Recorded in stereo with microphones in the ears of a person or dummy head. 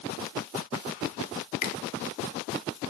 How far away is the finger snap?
About 1.3 m.